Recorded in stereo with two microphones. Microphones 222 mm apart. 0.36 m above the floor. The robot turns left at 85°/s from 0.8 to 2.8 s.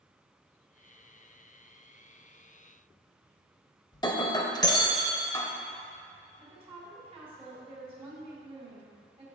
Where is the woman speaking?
20° right (ahead or behind), 2 m.